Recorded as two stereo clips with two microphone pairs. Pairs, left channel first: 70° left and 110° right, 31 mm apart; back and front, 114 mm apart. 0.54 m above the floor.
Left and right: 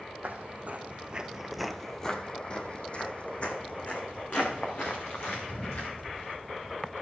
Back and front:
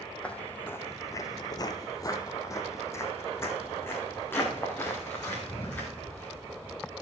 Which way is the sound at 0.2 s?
100° right.